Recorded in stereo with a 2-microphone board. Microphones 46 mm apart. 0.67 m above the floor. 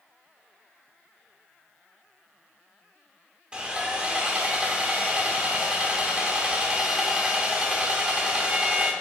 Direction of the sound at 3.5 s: 20° right (ahead or behind).